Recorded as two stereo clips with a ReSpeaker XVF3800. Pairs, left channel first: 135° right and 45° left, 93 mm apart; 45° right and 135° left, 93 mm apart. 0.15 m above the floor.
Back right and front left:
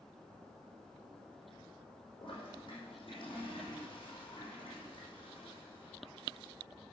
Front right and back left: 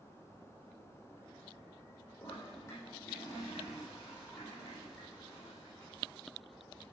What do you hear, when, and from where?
2.2 s a toilet flushing: 100° right, 6.5 m